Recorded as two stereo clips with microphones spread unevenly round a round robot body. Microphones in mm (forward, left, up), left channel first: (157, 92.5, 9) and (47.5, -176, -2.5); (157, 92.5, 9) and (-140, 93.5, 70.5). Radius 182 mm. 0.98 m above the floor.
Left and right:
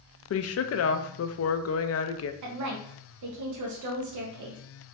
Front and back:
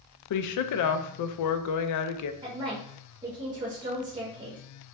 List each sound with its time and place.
0.3 s a woman speaking: 20° left, 0.5 m
2.4 s a woman speaking: 100° right, 0.8 m